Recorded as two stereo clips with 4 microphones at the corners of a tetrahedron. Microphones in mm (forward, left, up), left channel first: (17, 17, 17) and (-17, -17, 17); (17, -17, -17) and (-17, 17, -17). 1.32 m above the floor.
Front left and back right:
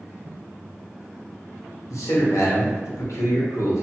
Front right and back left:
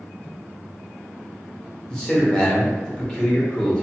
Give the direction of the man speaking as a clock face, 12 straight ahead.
11 o'clock.